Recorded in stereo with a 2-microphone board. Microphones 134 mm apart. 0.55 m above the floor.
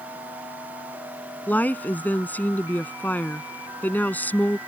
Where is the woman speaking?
15° left (ahead or behind).